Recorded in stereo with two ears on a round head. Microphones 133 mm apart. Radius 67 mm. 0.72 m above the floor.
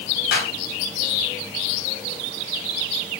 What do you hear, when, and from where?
0.3 s a clap: 70° left (ahead or behind), 3.5 m